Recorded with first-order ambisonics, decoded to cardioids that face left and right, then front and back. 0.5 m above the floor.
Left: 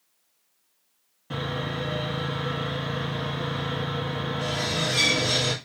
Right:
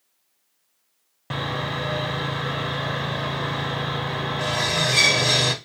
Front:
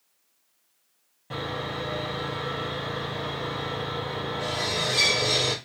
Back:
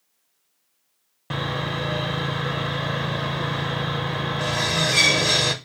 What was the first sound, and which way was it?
Sawing, 135° right.